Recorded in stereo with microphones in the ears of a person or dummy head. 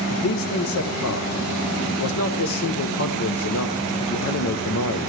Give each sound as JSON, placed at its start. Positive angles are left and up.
{"t": 0.1, "sound": "a man speaking", "side_deg": 75, "distance_m": 0.8}